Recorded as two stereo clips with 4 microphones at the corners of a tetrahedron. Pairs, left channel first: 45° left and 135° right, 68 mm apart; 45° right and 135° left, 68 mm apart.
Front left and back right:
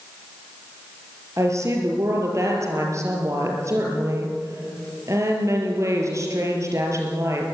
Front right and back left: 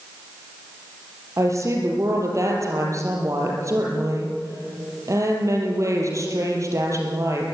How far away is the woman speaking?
About 6 m.